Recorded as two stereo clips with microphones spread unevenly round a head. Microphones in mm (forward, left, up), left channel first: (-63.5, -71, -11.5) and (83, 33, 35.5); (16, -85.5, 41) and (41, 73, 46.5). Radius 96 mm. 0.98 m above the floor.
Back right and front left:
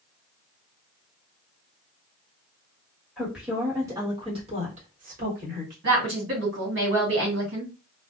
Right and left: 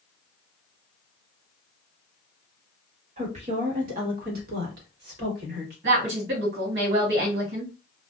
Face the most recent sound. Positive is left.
turn(degrees=70)